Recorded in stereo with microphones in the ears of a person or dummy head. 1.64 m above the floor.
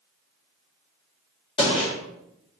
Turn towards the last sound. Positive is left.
turn(degrees=25)  # may be behind; listen again after turning